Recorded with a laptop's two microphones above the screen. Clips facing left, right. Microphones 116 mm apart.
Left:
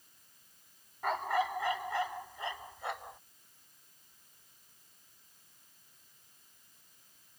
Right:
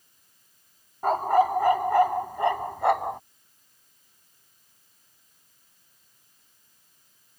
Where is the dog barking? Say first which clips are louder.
Right 11 dB; 40° right (ahead or behind); by 3.2 s 75° right (ahead or behind).